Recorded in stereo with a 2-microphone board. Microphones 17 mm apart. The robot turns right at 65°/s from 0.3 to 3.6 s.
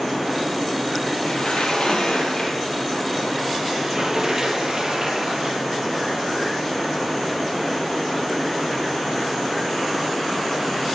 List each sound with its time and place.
1.3 s a sliding door: 65° left, 3.5 m; by 5.6 s 145° right, 3.5 m